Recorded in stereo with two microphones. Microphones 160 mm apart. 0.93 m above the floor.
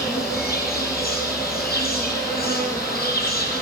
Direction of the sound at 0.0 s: 75° left (ahead or behind).